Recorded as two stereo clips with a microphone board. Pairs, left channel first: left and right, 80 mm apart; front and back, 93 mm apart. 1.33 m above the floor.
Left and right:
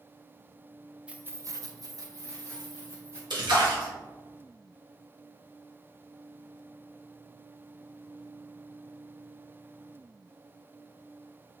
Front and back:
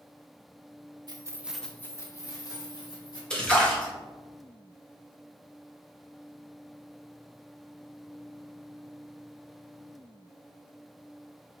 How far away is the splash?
About 1.8 m.